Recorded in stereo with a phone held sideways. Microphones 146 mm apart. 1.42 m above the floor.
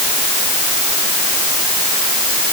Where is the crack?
No crack in this recording.